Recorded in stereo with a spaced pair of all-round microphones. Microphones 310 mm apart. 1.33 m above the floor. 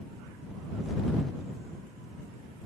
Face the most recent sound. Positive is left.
No sound to turn to.